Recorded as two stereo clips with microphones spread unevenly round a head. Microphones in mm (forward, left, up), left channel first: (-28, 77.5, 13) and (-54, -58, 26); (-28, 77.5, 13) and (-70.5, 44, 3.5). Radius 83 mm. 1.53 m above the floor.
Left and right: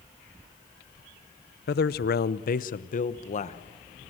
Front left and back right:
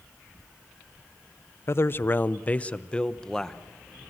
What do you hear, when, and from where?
1.7 s a man speaking: 70° left, 0.8 m; by 3.6 s 120° left, 1.4 m